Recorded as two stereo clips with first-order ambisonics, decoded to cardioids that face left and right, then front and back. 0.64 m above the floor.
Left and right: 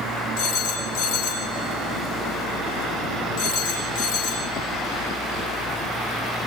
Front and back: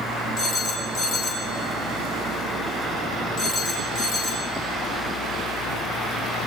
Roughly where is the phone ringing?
Ahead left.